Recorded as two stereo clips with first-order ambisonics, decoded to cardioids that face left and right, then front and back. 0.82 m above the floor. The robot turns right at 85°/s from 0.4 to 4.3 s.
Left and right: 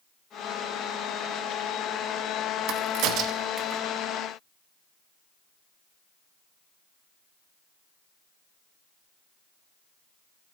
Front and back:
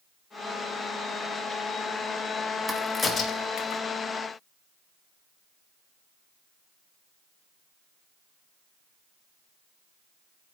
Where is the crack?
105° right, 0.7 m; by 3.8 s 10° right, 0.7 m.